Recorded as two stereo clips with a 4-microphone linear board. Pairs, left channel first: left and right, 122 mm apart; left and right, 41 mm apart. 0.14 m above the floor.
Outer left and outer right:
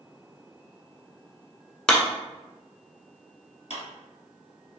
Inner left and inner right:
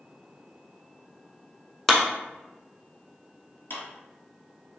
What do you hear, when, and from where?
1.9 s a clap: 5° left (ahead or behind), 0.9 m
3.7 s a clap: 60° left (ahead or behind), 2.0 m